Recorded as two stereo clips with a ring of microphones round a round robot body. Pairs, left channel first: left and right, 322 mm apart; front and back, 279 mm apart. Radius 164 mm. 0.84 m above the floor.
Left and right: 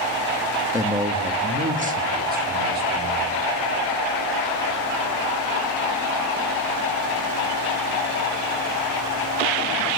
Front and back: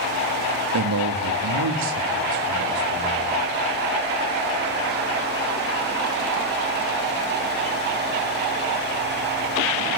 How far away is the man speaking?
About 1.8 m.